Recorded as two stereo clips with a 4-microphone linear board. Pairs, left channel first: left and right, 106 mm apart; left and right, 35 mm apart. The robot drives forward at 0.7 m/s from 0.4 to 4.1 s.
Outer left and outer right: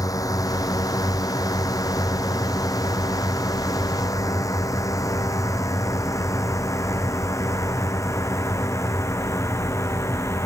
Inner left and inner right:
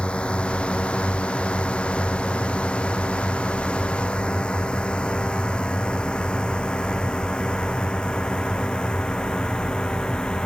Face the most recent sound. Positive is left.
turn(degrees=25)  # may be behind; listen again after turning